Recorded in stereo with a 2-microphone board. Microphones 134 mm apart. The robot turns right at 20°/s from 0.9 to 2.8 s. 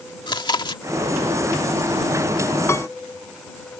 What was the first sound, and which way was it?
Chewing, 35° left (ahead or behind).